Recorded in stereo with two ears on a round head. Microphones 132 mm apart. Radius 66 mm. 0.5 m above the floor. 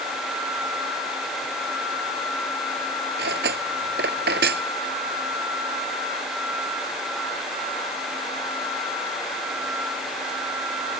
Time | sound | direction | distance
3.2 | cutlery clinking | 80° right | ?